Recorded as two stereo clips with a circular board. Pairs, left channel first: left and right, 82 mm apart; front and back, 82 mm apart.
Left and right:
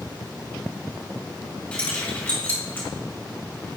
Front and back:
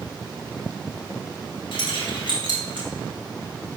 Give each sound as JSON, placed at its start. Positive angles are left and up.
{"t": 1.7, "sound": "keys jangling", "azimuth_deg": 15, "distance_m": 1.8}